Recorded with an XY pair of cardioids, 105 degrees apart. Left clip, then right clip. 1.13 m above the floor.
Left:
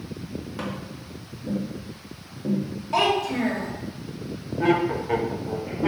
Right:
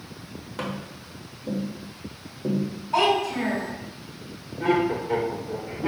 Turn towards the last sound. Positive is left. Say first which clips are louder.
# left 1 dB
turn(degrees=60)